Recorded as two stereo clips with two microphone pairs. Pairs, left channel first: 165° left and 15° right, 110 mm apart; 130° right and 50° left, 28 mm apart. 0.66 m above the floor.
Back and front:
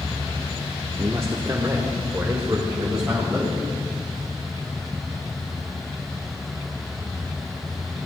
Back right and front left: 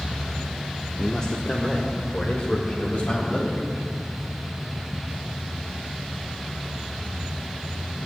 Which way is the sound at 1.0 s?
65° right.